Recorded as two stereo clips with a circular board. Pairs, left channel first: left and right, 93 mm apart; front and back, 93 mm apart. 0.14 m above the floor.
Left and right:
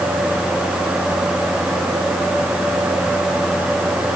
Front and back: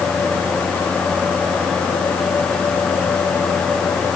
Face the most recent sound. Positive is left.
No sound to turn to.